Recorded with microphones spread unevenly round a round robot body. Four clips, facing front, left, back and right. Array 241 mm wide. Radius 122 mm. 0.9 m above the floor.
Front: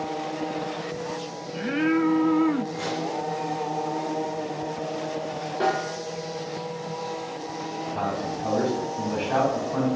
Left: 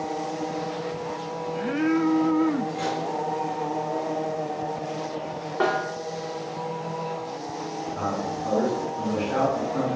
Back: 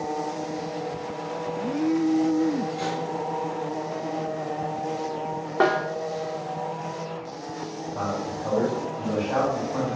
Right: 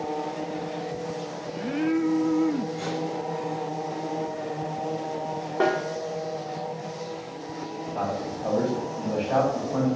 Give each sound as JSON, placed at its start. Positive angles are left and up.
{"t": 2.7, "sound": "cutlery clinking", "azimuth_deg": 145, "distance_m": 1.6}
{"t": 5.6, "sound": "a snare drum", "azimuth_deg": -155, "distance_m": 0.5}
{"t": 7.9, "sound": "a man speaking", "azimuth_deg": -45, "distance_m": 2.5}